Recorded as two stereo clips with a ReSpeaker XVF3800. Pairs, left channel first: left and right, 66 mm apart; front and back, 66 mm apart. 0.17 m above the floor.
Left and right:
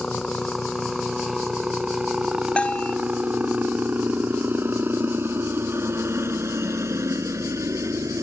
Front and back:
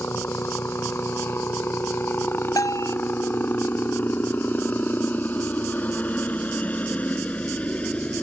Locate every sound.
0.0 s a helicopter: 10° left; by 8.2 s 65° right
2.6 s a bell: 20° left